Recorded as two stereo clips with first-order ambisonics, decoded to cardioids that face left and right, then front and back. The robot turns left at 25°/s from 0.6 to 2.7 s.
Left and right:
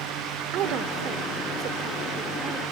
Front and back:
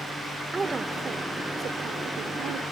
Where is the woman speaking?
105° right; by 2.6 s 155° right.